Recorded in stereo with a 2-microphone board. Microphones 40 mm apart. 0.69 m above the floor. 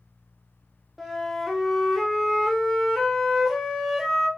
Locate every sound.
1.0 s a flute: centre (ahead or behind), 0.5 m